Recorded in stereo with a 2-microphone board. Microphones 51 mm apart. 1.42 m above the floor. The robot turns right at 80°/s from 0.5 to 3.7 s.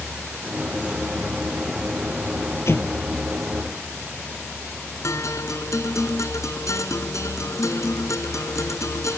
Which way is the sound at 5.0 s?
75° left (ahead or behind).